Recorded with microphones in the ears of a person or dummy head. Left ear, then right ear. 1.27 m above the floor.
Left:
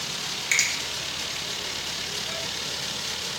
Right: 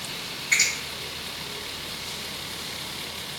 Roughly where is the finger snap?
Left.